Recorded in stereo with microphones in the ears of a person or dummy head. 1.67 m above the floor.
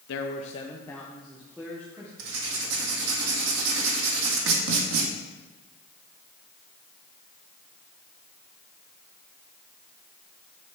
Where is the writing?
70° right (ahead or behind), 1.9 m.